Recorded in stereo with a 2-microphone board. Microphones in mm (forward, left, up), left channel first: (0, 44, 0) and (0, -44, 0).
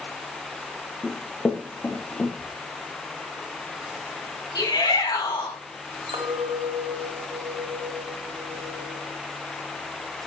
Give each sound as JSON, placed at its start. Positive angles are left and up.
{"t": 1.0, "sound": "running footsteps", "side_deg": 15, "distance_m": 3.0}
{"t": 2.4, "sound": "whispering", "side_deg": 45, "distance_m": 3.5}
{"t": 4.5, "sound": "a shout", "side_deg": 50, "distance_m": 5.0}
{"t": 6.1, "sound": "a clink", "side_deg": -75, "distance_m": 2.0}